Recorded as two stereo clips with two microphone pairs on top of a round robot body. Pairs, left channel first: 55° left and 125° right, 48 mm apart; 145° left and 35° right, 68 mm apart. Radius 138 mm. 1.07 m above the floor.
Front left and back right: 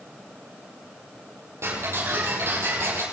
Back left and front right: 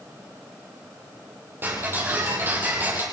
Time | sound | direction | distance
1.6 | ticking | 95° right | 7.5 m